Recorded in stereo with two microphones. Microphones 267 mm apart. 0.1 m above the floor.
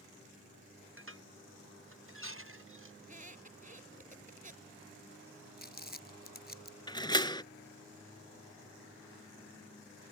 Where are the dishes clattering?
50° right (ahead or behind).